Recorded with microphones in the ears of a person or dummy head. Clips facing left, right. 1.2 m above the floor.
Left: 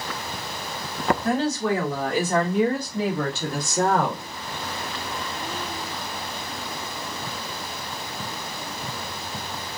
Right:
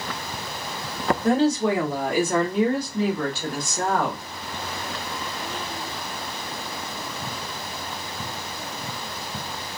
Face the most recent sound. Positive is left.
turn(degrees=35)  # may be behind; listen again after turning